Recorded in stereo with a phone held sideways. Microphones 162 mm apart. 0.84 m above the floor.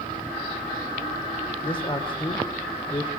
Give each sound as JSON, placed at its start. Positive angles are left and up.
{"t": 1.6, "sound": "a man speaking", "side_deg": 30, "distance_m": 2.5}